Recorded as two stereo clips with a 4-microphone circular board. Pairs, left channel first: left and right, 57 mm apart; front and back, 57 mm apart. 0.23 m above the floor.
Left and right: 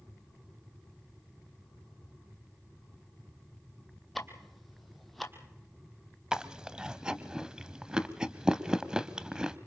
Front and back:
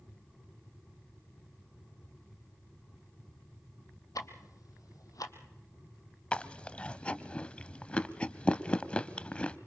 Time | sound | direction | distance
4.2 | ticking | straight ahead | 1.5 m
6.3 | chewing | 35° right | 0.7 m